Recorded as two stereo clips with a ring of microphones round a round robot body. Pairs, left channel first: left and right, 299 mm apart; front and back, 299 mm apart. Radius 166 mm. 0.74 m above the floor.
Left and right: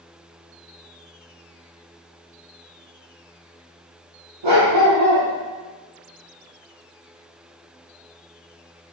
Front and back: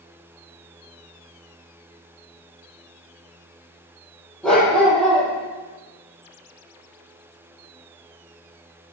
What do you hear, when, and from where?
4.4 s a dog barking: 85° right, 8.5 m